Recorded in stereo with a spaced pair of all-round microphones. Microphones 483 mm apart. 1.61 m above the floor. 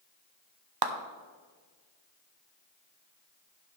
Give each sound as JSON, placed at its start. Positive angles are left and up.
{"t": 0.8, "sound": "a clap", "side_deg": -50, "distance_m": 0.7}